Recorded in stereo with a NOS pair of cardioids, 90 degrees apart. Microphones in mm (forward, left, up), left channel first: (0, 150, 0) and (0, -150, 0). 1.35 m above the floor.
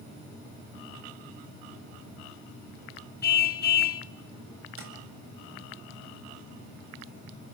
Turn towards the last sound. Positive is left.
turn(degrees=-45)